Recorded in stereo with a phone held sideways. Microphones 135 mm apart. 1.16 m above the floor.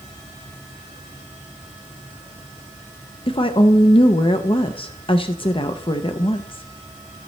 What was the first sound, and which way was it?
A woman speaking, 40° left (ahead or behind).